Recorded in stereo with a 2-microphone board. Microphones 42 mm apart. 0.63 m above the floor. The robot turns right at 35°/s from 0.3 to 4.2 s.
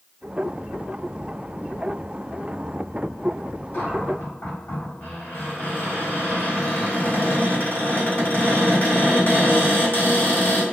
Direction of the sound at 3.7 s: 50° left (ahead or behind).